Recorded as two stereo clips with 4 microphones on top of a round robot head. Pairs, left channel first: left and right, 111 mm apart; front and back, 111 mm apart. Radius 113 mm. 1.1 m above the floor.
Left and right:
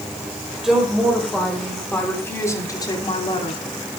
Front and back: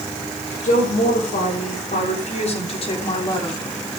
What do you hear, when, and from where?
0.6 s a woman speaking: 5° right, 5 m; by 3.6 s 55° left, 3 m